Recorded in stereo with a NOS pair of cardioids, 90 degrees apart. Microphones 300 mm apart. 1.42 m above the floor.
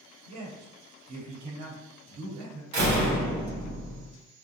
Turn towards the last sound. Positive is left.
turn(degrees=-65)